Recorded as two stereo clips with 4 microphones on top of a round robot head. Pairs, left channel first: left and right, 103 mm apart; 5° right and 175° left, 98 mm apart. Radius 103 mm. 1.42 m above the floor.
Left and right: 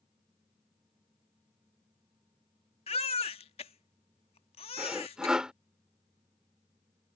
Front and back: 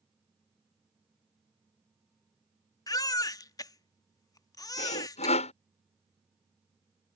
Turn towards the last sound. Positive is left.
turn(degrees=-5)